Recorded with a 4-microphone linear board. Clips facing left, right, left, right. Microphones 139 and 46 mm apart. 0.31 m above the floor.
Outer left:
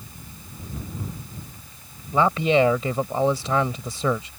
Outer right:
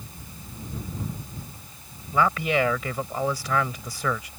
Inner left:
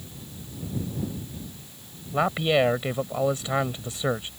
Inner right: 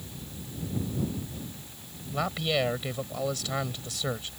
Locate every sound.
2.1 s a man speaking: 25° left (ahead or behind)